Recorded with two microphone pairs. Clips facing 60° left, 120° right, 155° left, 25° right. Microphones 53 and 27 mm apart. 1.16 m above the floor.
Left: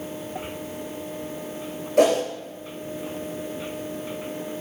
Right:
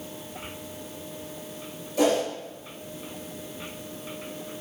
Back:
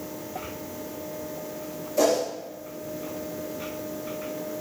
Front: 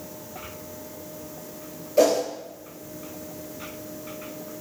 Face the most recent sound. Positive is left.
turn(degrees=35)